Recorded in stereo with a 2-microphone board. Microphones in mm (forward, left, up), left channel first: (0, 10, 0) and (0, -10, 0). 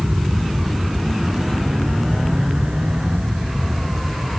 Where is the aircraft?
60° right (ahead or behind); by 4.4 s 70° right (ahead or behind).